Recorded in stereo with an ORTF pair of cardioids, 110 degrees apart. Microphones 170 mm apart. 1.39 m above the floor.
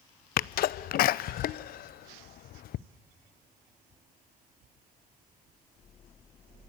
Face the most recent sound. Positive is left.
turn(degrees=60)